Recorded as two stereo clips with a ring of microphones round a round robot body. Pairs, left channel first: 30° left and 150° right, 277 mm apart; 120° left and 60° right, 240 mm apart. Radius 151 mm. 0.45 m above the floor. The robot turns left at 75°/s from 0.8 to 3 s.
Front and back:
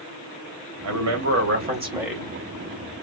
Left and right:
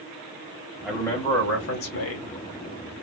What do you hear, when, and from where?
0.8 s a man speaking: 145° right, 3 m; by 2.4 s 100° left, 3 m